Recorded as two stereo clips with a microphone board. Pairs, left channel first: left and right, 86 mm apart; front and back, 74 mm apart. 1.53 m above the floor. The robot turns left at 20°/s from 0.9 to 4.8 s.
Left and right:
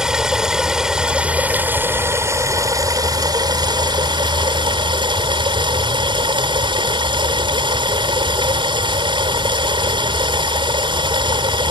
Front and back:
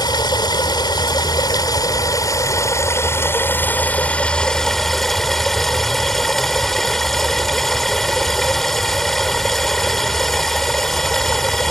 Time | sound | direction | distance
0.0 | running water | 10° right | ?